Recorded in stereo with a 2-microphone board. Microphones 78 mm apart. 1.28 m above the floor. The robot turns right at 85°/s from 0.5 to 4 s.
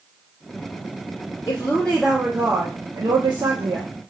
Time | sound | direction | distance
1.5 | a woman speaking | 130° left | 0.8 m